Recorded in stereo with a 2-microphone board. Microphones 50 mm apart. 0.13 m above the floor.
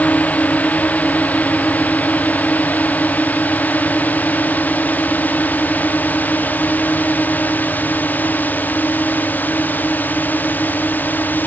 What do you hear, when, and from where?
0.0 s a drone: 35° left (ahead or behind); by 11.5 s 40° left (ahead or behind)